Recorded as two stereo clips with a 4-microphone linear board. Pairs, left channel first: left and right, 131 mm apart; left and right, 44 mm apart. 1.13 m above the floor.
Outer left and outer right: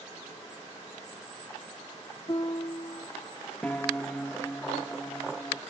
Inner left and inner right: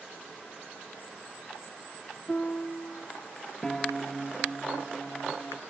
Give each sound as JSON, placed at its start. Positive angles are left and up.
{"t": 2.3, "sound": "a piano", "side_deg": 40}
{"t": 3.6, "sound": "a piano", "side_deg": 15}